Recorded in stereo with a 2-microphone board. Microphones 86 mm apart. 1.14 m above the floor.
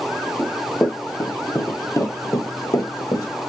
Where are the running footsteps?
25° left (ahead or behind), 1.9 m; by 3.3 s 45° left (ahead or behind), 1.6 m.